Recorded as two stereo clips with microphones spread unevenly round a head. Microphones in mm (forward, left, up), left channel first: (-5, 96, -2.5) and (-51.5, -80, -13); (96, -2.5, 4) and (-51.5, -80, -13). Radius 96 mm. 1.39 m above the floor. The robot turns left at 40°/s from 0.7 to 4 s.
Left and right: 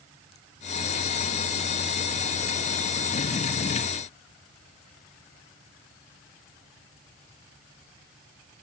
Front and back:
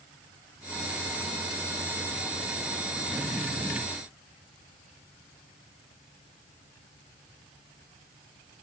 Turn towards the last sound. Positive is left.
No sound to turn to.